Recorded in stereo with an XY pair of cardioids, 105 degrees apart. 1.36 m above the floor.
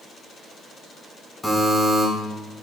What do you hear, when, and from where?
1.4 s a buzzer: 10° left, 4 m